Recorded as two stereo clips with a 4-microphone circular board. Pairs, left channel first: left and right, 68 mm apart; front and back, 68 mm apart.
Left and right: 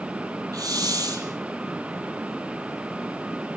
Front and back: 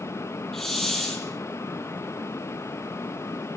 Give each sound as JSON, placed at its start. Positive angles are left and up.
{"t": 0.5, "sound": "a hiss", "azimuth_deg": -85, "distance_m": 4.5}